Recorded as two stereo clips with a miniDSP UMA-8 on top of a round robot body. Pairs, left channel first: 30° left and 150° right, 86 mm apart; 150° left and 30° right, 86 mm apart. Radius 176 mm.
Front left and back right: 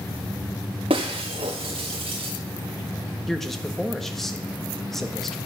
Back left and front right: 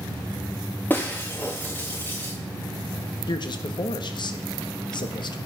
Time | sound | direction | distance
0.9 | breaking glass | 140° right | 0.6 m
3.3 | a man speaking | 120° left | 1.5 m